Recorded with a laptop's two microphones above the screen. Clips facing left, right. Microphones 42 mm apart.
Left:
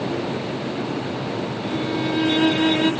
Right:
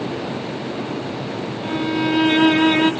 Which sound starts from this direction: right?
A violin, at 1.6 s.